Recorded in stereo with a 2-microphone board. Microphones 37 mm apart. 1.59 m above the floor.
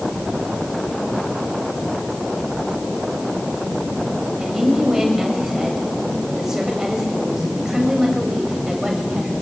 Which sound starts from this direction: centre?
A woman speaking, at 4.4 s.